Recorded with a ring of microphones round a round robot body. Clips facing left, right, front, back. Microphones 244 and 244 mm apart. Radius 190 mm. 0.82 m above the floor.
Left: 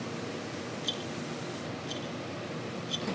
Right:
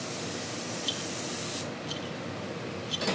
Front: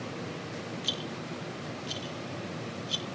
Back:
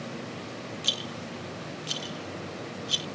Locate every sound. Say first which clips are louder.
0.8 s a rattle: even, even; 175° right